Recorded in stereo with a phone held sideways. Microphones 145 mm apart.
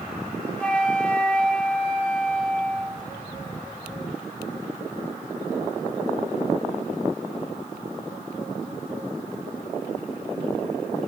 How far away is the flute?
About 0.8 m.